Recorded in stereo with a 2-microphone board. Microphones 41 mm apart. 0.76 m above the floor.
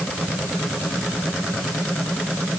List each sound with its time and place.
Only background noise.